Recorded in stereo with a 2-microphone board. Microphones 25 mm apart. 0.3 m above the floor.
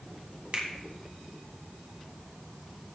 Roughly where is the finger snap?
Right.